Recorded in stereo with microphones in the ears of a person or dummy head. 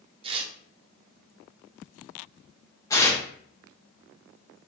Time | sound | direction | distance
0.2 | tearing paper | 35° right (ahead or behind) | 0.5 m
2.9 | tearing paper | 20° left (ahead or behind) | 0.7 m